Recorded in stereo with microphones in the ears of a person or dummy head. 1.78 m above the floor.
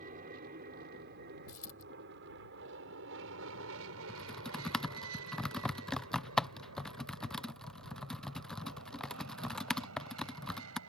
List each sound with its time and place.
0.0 s an aircraft: 40° right (ahead or behind); by 10.9 s 85° right
1.5 s a dropped coin: 50° left (ahead or behind)
4.1 s typing on a keyboard: centre (ahead or behind)